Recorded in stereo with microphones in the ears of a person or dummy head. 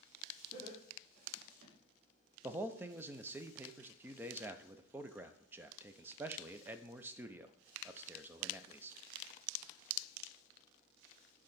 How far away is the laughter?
About 3 m.